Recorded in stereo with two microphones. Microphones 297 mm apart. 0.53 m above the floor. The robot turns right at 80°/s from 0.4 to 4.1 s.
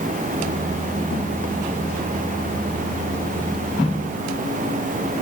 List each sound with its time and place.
Only background noise.